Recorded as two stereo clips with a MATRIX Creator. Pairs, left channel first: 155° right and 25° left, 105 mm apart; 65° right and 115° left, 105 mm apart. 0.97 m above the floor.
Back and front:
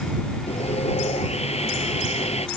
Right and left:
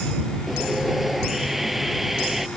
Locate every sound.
0.5 s sawing: 160° right